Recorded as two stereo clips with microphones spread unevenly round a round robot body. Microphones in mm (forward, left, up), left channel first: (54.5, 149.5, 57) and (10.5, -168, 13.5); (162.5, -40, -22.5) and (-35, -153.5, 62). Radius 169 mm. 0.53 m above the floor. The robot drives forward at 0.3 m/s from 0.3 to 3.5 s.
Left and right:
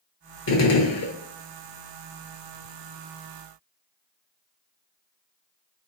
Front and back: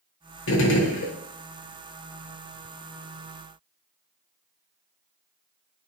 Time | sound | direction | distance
0.5 | a gunshot | 30° left | 1.1 m